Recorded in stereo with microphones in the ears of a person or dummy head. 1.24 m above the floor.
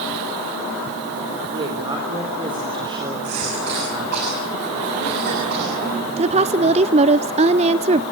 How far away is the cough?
About 7 m.